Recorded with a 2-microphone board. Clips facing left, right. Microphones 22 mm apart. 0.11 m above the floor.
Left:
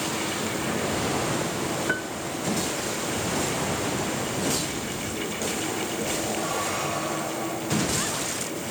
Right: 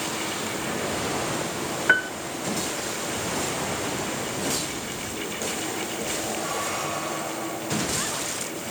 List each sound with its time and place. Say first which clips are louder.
1.9 s a piano: right 7 dB; 45° right (ahead or behind)